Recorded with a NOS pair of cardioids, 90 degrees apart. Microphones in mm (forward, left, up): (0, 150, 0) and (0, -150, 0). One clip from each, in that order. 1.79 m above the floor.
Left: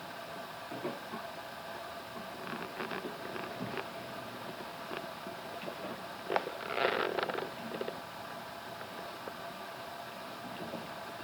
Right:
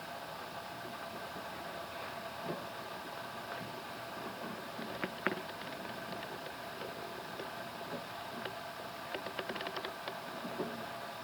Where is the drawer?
I don't hear a drawer.